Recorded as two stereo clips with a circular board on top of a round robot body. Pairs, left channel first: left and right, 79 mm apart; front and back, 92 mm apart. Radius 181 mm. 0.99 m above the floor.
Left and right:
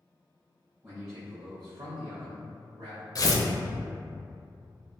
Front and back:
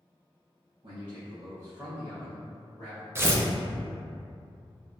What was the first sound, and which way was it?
A man speaking, 150° right.